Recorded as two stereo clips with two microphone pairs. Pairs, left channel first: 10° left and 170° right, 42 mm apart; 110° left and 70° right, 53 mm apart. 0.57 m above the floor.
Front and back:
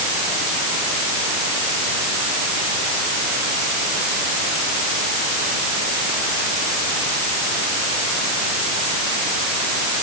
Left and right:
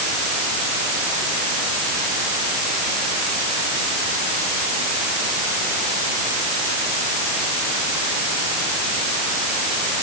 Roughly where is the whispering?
No whispering in this recording.